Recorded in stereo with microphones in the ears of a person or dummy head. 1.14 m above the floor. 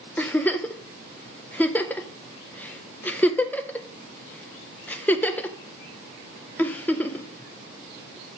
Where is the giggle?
5° left (ahead or behind), 0.5 m.